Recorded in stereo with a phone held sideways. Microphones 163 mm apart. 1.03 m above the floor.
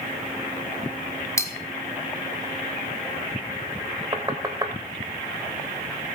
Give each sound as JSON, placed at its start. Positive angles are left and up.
{"t": 1.4, "sound": "cutlery clinking", "side_deg": 15, "distance_m": 1.7}
{"t": 4.1, "sound": "knocking", "side_deg": -25, "distance_m": 3.0}